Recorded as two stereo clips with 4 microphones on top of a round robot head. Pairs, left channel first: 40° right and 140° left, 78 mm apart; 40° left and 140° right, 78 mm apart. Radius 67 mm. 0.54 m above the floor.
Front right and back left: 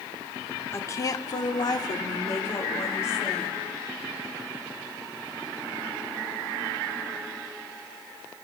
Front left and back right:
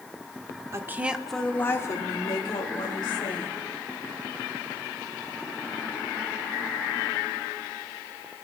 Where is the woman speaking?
90° right, 1.3 m; by 3.6 s 20° left, 3.5 m.